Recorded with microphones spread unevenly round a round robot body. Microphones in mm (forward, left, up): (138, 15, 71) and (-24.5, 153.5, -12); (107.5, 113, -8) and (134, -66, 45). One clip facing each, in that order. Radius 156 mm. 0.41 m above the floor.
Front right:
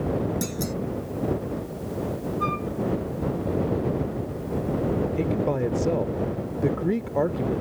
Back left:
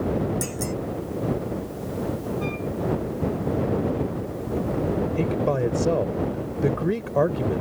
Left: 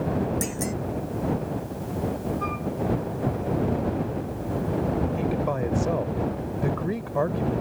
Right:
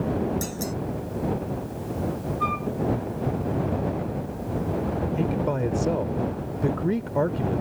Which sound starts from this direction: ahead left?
A clunk, at 0.4 s.